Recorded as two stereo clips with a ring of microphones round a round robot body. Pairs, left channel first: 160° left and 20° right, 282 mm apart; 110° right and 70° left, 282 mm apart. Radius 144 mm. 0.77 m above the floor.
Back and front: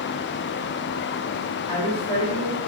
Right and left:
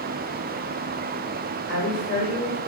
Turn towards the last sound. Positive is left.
turn(degrees=85)